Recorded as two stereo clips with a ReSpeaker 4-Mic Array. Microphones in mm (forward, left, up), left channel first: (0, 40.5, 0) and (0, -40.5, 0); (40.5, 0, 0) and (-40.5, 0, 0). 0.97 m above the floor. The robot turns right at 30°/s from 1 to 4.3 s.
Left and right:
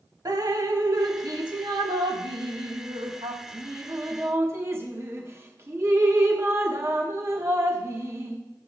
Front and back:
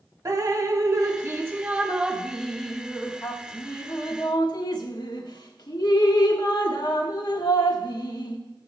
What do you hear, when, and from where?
0.2 s dripping: 130° right, 1.1 m; by 8.4 s 35° right, 1.1 m